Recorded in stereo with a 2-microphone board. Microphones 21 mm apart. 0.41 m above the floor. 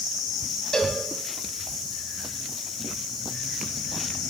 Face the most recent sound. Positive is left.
turn(degrees=30)  # may be behind; listen again after turning